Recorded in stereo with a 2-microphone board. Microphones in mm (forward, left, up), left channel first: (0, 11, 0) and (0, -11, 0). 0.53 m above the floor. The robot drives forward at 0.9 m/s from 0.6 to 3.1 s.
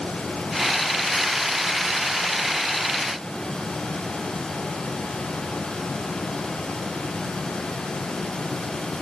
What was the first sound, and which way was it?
Only background noise.